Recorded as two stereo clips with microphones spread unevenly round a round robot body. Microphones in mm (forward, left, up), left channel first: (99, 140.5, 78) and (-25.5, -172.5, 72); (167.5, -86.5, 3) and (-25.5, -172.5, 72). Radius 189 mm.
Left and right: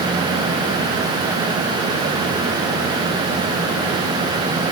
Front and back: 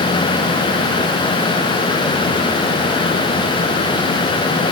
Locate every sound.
Only background noise.